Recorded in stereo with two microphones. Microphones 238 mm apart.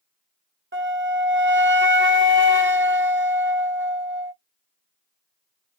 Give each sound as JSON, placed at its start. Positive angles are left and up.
{"t": 0.7, "sound": "a flute", "side_deg": -50, "distance_m": 0.7}